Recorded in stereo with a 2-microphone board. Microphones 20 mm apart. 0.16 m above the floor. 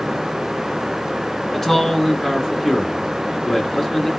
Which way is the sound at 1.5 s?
25° left (ahead or behind).